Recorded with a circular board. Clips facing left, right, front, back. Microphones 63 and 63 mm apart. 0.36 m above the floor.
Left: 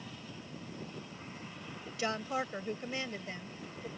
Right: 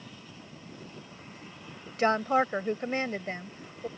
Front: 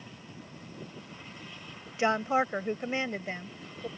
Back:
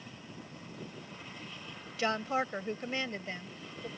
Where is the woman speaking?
60° right.